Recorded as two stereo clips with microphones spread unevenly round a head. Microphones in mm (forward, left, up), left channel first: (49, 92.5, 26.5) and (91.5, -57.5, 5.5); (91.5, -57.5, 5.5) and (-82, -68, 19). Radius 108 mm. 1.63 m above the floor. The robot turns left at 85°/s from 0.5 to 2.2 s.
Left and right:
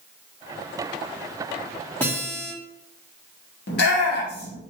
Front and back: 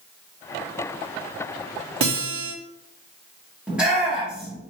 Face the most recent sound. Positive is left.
turn(degrees=100)